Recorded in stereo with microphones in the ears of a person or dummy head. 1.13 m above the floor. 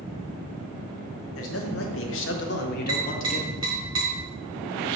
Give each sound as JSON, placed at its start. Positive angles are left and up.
{"t": 1.4, "sound": "a man speaking", "side_deg": 65, "distance_m": 1.3}
{"t": 2.9, "sound": "tapping", "side_deg": -20, "distance_m": 1.7}